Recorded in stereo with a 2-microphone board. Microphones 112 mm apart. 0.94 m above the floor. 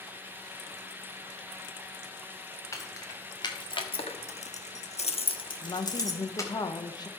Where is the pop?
No pop in this recording.